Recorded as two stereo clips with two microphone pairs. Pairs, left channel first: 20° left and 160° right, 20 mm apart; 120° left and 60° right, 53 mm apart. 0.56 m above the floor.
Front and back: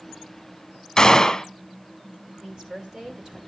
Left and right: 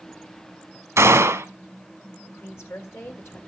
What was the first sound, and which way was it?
A gunshot, 40° right.